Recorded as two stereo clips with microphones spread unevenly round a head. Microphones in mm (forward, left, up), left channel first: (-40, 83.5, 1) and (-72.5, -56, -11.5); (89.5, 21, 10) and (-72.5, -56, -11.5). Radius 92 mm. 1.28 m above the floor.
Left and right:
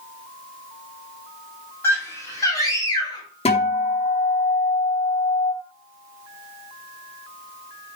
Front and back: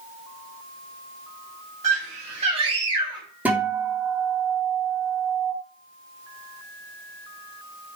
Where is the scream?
150° left, 7.5 m; by 3.3 s 135° left, 8 m.